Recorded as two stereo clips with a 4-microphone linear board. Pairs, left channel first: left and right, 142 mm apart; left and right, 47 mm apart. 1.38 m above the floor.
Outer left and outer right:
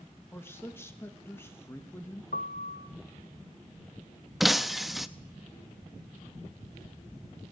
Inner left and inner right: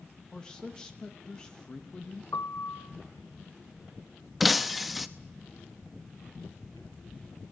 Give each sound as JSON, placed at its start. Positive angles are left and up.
{"t": 0.3, "sound": "a man speaking", "side_deg": 15, "distance_m": 1.3}
{"t": 2.3, "sound": "a piano", "side_deg": 80, "distance_m": 0.8}
{"t": 4.4, "sound": "breaking glass", "side_deg": 0, "distance_m": 0.8}